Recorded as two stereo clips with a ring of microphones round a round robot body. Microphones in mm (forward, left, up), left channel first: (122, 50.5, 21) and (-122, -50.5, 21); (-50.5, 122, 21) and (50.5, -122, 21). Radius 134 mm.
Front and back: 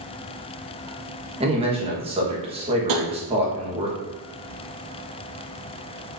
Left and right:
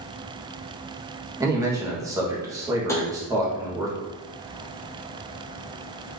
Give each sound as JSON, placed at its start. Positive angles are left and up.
{"t": 1.4, "sound": "a man speaking", "azimuth_deg": -125, "distance_m": 1.0}
{"t": 2.9, "sound": "tapping", "azimuth_deg": -165, "distance_m": 0.7}